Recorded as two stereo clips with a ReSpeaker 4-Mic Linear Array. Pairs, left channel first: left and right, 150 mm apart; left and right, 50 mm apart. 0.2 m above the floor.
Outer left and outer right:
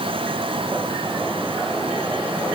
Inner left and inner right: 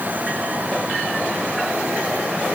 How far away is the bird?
No bird in this recording.